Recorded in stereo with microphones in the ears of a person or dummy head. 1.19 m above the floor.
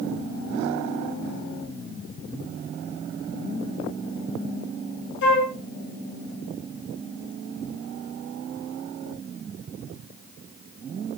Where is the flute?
65° left (ahead or behind), 1.0 m.